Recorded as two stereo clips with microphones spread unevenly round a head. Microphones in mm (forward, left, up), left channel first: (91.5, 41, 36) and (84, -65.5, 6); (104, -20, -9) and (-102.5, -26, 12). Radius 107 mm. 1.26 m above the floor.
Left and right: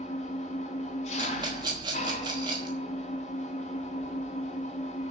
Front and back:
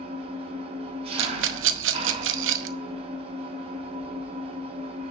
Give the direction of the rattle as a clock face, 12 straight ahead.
6 o'clock.